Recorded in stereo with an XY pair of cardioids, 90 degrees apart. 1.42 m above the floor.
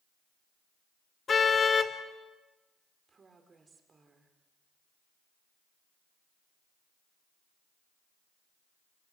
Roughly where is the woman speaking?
Ahead right.